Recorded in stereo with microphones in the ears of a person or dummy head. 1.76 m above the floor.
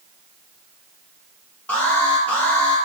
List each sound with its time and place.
1.7 s an alarm: 15° left (ahead or behind), 4.5 m